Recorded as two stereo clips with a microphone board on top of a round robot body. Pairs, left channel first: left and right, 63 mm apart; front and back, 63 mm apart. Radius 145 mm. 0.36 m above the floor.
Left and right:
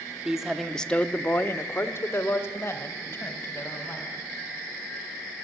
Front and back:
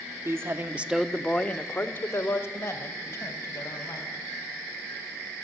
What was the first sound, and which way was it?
A man speaking, 170° right.